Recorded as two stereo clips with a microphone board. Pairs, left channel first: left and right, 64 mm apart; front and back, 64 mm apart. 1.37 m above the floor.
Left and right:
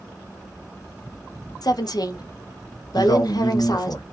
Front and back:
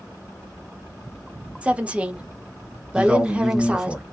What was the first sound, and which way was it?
A woman speaking, 110° left.